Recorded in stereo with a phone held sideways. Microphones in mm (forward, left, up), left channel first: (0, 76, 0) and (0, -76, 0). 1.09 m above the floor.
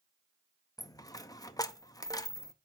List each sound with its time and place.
0.8 s a dropped coin: 25° left (ahead or behind), 0.6 m